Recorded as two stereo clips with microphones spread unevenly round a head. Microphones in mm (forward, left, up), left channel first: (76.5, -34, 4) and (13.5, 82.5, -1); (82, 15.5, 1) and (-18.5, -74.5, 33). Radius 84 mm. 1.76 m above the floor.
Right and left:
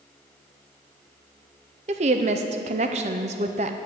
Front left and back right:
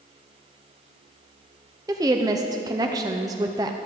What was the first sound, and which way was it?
A woman speaking, 165° left.